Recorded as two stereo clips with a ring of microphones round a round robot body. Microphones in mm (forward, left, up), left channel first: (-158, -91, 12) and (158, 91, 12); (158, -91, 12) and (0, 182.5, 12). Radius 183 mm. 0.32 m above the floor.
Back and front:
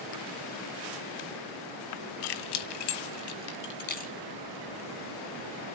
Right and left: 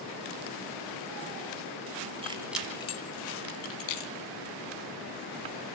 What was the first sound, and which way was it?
Keys jangling, 165° right.